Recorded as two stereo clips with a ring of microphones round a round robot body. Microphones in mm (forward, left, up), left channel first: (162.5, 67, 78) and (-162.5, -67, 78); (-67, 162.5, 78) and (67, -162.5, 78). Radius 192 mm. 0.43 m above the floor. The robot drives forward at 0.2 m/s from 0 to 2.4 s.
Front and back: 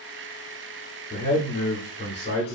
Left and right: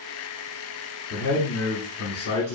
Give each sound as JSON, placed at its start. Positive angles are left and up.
{"t": 1.1, "sound": "a man speaking", "azimuth_deg": 85, "distance_m": 1.2}